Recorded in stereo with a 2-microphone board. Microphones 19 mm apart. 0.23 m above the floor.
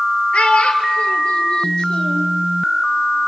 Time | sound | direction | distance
0.3 | a child speaking | 70° left (ahead or behind) | 2.5 m